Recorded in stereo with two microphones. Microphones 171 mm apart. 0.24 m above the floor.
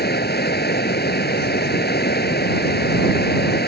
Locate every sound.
0.0 s running water: 75° left (ahead or behind)